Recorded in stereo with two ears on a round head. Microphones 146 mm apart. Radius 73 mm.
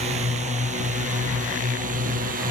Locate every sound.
0.0 s a drone: 40° right (ahead or behind); by 2.5 s 55° right (ahead or behind)